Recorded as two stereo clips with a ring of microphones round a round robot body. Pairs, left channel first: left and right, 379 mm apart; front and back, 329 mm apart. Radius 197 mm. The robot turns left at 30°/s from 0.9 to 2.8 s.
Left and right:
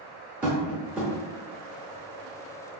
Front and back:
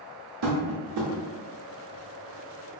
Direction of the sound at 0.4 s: 175° right.